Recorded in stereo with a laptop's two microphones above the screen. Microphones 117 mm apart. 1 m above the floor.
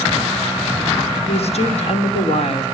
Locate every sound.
1.3 s a woman speaking: 60° left (ahead or behind), 3 m